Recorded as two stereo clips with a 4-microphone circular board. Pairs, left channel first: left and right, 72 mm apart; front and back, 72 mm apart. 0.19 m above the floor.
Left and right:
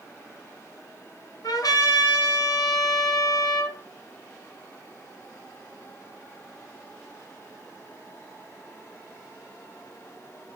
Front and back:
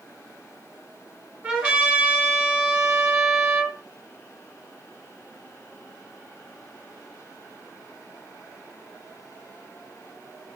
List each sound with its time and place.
1.4 s a trumpet: 105° left, 1.7 m